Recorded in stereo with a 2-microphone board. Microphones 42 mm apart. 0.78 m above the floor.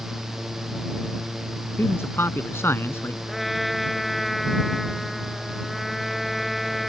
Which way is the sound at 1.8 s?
65° left (ahead or behind).